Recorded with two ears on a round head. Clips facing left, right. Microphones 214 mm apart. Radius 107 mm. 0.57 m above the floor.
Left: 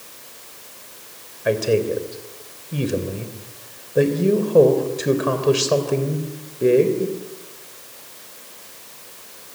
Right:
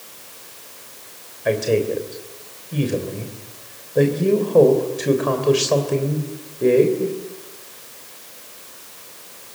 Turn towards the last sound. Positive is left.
turn(degrees=5)  # may be behind; listen again after turning